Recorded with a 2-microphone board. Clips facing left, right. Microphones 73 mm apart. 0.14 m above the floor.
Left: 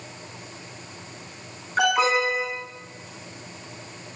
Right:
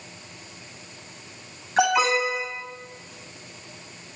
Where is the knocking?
No knocking in this recording.